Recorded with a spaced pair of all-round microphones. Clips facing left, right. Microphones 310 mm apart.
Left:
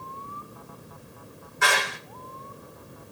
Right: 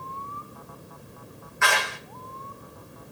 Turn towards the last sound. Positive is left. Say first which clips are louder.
# left 1 dB
turn(degrees=45)  # may be behind; listen again after turning